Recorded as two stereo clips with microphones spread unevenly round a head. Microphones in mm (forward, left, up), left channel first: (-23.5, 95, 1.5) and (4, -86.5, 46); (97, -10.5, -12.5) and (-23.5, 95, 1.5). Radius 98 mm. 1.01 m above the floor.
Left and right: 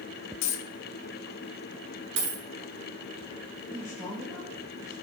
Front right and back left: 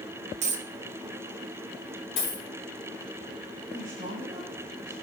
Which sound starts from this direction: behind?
A man speaking, at 3.7 s.